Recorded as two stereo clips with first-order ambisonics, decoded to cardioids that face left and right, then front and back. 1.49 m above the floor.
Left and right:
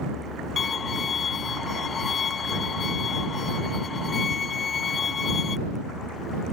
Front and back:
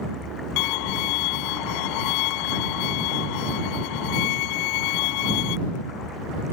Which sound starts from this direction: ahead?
A violin, at 0.6 s.